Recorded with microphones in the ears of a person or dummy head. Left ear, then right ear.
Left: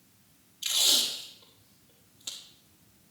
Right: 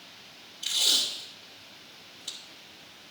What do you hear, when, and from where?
0.6 s tape being pulled: 20° left (ahead or behind), 1.3 m